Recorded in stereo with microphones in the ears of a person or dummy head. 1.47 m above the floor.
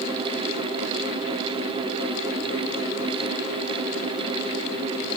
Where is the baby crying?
No baby crying in this recording.